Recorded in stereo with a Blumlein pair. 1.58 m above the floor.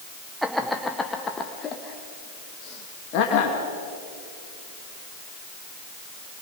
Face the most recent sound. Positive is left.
turn(degrees=45)